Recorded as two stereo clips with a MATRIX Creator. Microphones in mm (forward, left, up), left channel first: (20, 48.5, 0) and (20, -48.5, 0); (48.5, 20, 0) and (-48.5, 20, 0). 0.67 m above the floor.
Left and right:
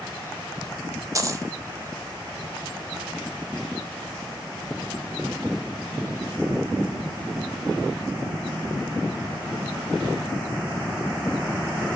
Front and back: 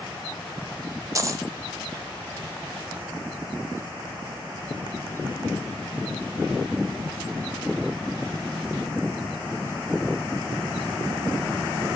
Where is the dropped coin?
135° right, 0.5 m.